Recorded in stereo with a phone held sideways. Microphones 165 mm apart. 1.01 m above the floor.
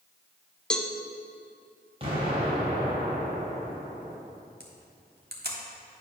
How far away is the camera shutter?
About 1.3 m.